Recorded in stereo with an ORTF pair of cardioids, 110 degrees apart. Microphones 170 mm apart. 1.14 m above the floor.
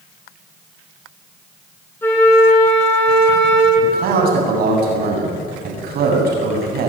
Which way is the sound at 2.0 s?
15° left.